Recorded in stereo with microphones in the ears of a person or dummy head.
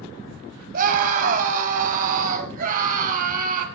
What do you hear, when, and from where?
0.7 s a scream: 50° right (ahead or behind), 5 m